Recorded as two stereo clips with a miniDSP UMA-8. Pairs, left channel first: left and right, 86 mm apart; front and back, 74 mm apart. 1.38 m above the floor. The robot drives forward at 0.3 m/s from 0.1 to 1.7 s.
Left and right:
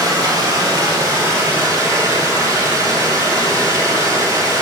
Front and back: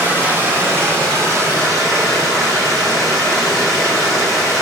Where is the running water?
120° right, 1.4 m; by 4.6 s 140° right, 1.7 m.